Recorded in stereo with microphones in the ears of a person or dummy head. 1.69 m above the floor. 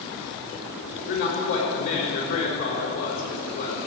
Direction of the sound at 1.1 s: 55° left (ahead or behind).